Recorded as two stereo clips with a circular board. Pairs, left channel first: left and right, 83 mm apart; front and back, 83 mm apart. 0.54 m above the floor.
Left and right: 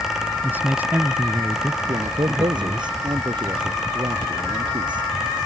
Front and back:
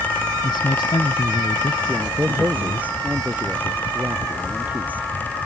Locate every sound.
0.4 s a man speaking: 25° right
1.9 s a man speaking: 110° right